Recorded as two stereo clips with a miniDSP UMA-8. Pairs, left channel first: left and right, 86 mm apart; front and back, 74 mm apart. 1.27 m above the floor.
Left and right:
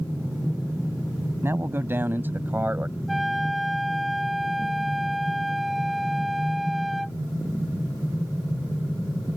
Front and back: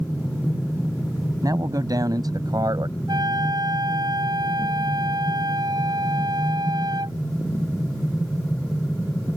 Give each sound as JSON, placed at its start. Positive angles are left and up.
{"t": 1.4, "sound": "a man speaking", "azimuth_deg": -150}
{"t": 3.1, "sound": "a flute", "azimuth_deg": 180}